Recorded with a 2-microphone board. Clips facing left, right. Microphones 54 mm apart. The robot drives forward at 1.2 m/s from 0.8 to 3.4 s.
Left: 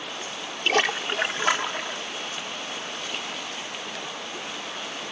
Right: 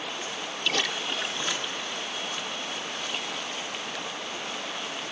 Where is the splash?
45° left (ahead or behind); by 2.0 s 60° left (ahead or behind).